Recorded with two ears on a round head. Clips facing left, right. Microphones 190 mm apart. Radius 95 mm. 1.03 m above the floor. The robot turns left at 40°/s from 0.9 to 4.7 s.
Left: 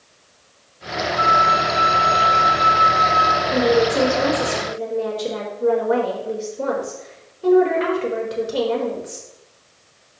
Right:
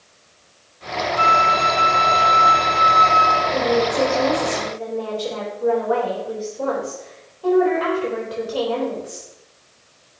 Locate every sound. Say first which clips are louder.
1.2 s a flute: even; 50° right, 1.2 m; by 3.4 s 140° right, 1.2 m
3.5 s a woman speaking: left 4 dB; 80° left, 4 m; by 9.3 s 30° left, 4 m